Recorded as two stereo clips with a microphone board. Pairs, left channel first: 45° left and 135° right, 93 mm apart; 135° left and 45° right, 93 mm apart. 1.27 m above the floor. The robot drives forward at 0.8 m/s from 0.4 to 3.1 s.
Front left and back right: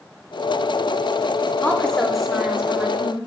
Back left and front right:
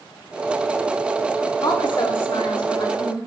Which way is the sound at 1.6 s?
110° left.